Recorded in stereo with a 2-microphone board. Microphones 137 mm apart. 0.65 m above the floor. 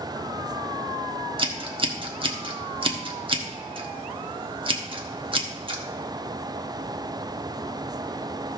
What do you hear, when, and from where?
1.4 s scissors: 40° right (ahead or behind), 1.1 m